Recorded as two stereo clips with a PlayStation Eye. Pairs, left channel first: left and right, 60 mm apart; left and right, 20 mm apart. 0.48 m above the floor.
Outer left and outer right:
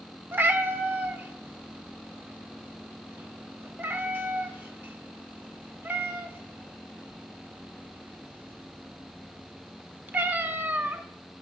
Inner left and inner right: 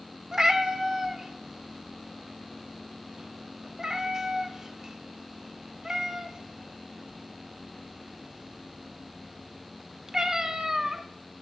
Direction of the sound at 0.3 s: 35° right (ahead or behind).